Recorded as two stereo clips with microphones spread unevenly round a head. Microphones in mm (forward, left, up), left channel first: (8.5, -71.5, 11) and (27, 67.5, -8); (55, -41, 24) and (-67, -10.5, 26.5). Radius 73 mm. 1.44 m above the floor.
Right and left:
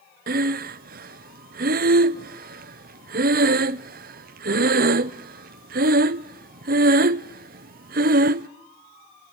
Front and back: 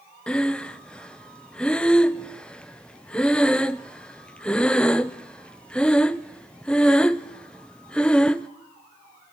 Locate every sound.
0.3 s breathing: 65° left, 0.7 m